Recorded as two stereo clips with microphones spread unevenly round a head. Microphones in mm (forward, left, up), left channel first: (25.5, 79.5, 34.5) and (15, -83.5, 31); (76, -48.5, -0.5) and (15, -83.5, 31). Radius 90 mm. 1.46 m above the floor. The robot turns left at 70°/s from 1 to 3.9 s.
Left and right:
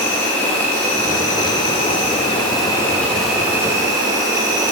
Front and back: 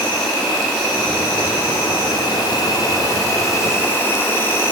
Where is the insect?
155° left, 0.9 m; by 4.7 s 45° right, 0.9 m.